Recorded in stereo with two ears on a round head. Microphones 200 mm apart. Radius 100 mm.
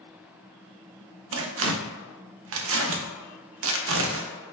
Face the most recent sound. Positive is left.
turn(degrees=-65)  # may be behind; listen again after turning